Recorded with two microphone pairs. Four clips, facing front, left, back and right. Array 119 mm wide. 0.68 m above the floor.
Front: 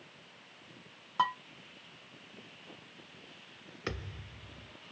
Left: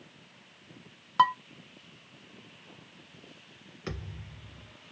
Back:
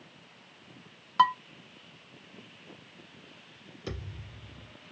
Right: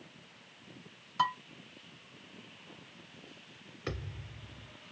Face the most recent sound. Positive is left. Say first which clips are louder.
# even, even
turn(degrees=0)